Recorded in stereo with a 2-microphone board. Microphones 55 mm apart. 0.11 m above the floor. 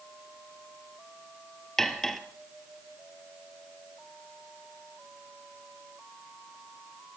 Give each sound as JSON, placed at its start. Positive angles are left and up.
{"t": 1.8, "sound": "cutlery clinking", "side_deg": 5, "distance_m": 1.5}